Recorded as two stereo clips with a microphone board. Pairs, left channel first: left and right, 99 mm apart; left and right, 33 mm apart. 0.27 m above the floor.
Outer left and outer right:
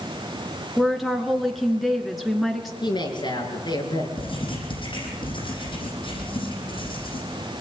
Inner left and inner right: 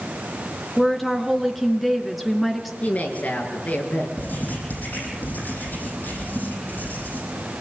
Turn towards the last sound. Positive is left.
turn(degrees=60)  # may be behind; listen again after turning